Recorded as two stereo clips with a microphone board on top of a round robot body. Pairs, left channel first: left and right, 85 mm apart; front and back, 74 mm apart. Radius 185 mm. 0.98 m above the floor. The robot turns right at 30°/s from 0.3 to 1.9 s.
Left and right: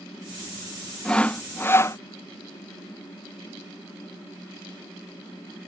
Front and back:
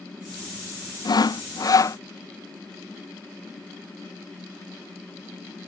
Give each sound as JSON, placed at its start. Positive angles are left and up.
{"t": 1.1, "sound": "sawing", "azimuth_deg": 10}